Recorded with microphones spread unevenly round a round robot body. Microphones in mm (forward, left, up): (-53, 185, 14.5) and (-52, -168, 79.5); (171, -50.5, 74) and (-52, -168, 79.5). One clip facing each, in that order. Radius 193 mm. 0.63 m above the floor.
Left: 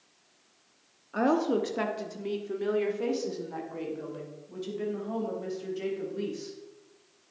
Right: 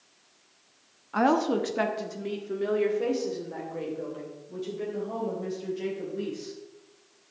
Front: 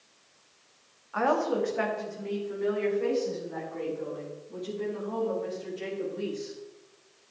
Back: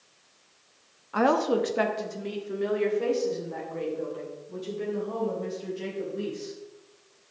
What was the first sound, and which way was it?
A woman speaking, 165° right.